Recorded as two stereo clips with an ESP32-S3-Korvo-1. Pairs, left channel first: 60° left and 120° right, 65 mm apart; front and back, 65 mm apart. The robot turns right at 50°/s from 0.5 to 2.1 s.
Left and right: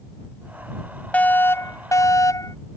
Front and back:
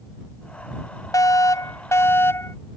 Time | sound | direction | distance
1.1 | a fire alarm | 5° right | ?